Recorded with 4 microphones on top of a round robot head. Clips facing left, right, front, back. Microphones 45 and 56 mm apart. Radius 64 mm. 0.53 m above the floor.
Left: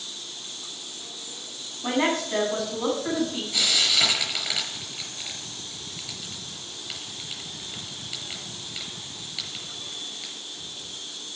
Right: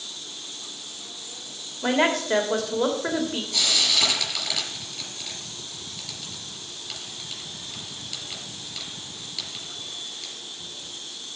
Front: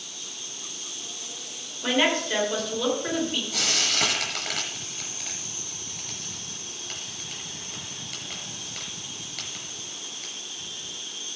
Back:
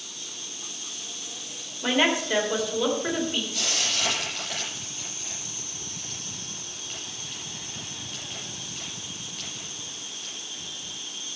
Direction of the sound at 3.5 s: 10° left.